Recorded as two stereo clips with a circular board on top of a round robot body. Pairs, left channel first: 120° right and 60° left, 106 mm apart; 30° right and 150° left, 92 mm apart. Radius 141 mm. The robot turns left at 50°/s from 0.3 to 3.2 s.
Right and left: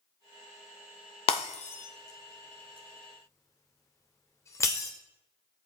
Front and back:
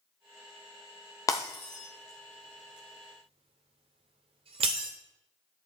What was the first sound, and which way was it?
Breaking glass, 90° right.